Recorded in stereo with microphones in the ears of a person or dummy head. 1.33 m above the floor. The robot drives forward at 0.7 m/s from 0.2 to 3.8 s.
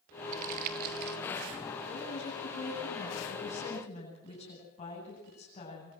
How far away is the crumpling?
About 2 m.